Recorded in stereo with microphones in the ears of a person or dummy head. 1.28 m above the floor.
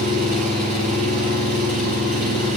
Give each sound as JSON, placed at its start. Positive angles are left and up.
{"t": 0.0, "sound": "an engine running", "side_deg": -45, "distance_m": 3.5}